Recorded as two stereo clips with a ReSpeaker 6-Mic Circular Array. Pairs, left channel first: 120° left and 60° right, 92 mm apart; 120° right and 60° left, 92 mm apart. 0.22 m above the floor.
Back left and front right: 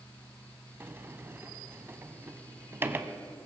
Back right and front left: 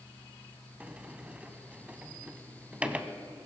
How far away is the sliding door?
About 0.7 m.